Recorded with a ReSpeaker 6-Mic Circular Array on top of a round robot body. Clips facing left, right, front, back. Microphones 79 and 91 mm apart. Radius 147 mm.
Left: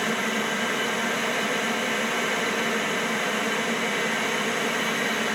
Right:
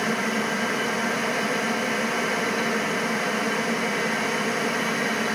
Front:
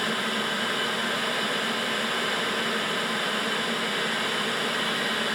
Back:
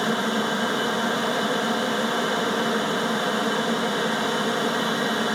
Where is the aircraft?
170° right.